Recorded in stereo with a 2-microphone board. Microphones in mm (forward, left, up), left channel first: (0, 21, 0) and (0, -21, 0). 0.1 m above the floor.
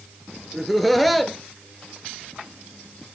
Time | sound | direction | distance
0.5 | laughter | centre (ahead or behind) | 1.3 m